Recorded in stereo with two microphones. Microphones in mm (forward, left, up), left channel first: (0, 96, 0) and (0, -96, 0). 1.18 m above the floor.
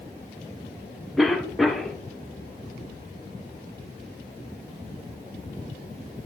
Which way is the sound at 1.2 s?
Centre (ahead or behind).